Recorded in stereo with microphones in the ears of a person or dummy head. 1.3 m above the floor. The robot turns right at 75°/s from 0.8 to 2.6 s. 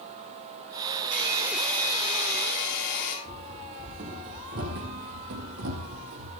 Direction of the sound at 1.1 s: 40° right.